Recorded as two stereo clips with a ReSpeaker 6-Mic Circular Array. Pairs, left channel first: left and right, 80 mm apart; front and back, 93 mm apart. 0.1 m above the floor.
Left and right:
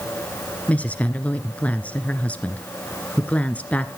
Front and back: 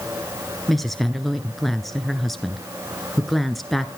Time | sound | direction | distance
0.7 | a woman speaking | 85° left | 1.1 m